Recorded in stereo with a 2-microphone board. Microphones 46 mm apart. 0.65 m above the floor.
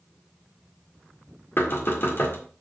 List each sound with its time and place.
1.6 s knocking: 55° left (ahead or behind), 1.7 m